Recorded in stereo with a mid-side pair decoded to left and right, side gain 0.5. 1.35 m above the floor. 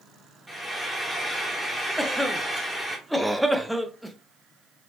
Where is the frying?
Straight ahead, 1.2 m.